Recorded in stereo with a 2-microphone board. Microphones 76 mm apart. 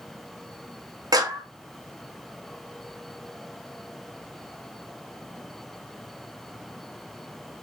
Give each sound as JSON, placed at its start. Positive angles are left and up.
{"t": 1.1, "sound": "a clap", "side_deg": -55, "distance_m": 0.6}